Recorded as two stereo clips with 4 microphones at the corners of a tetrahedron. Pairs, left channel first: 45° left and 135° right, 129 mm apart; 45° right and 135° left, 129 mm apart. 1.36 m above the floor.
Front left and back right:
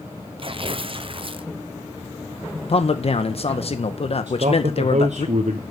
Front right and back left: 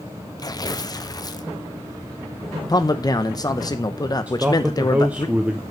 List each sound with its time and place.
0.4 s tearing paper: 95° right, 0.5 m
2.7 s a man speaking: 15° left, 0.8 m
4.3 s a man speaking: 150° right, 0.7 m